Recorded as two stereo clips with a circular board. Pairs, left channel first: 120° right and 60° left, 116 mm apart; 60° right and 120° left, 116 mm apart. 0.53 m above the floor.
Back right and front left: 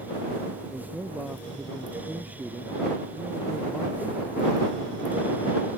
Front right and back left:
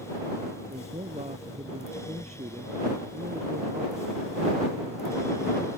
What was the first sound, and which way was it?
A man speaking, 140° left.